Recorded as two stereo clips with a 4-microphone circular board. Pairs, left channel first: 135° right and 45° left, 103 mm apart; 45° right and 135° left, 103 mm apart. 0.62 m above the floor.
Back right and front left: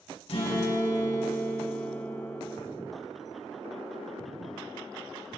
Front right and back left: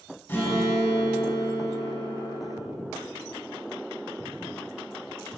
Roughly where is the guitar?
Behind right.